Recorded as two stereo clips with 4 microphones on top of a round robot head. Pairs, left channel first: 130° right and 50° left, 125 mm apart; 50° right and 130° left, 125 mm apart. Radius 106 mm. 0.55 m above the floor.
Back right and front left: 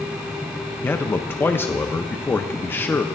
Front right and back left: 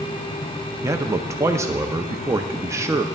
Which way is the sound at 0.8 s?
170° left.